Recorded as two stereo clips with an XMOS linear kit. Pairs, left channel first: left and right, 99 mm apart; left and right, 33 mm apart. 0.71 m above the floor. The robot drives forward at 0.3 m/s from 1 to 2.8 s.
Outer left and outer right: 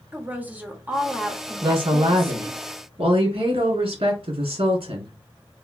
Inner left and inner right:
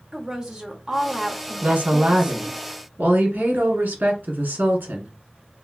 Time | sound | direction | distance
0.1 | a woman speaking | 15° right (ahead or behind) | 1.0 m
1.6 | a woman speaking | 60° right (ahead or behind) | 1.5 m